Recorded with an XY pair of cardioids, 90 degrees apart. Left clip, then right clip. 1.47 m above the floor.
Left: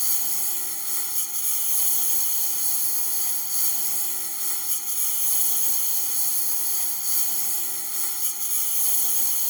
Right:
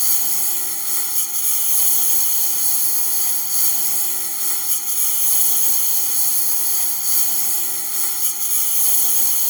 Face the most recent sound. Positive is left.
turn(degrees=-45)